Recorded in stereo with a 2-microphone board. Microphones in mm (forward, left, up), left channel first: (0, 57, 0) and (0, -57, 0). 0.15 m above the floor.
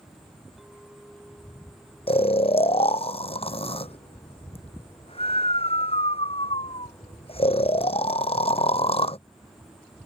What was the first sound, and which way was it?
A clink, centre (ahead or behind).